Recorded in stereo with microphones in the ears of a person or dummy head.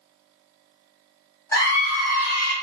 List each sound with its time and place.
1.5 s a scream: 15° left (ahead or behind), 1.3 m; by 2.5 s 70° left (ahead or behind), 1.3 m